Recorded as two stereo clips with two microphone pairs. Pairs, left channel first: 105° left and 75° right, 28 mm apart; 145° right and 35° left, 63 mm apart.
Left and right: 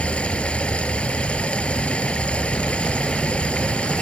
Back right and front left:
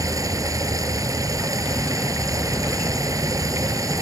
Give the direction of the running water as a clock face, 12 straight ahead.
10 o'clock.